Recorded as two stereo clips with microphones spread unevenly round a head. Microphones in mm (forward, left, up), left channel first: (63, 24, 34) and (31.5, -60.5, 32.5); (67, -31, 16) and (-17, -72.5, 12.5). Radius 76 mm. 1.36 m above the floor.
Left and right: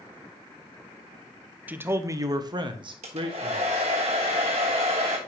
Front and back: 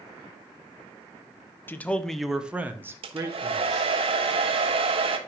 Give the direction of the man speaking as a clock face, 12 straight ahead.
1 o'clock.